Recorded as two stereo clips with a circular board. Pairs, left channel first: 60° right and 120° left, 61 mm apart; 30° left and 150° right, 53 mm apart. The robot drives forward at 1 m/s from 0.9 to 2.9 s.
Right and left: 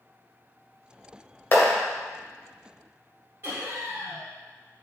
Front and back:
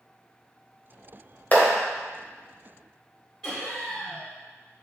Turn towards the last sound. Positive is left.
turn(degrees=105)